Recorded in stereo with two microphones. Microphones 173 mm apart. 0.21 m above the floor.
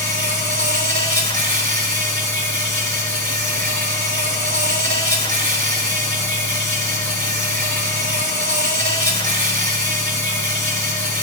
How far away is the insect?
About 1.1 m.